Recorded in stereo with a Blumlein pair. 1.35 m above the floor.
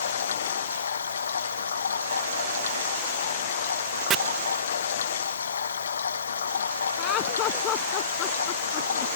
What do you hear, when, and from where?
0.0 s running water: 70° left
4.1 s chopping: 25° right
7.0 s laughter: 35° left